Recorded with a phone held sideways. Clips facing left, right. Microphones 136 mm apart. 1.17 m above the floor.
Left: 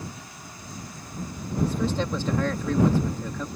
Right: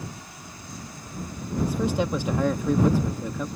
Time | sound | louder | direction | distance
1.6 | a man speaking | right 2 dB | 15° right (ahead or behind) | ?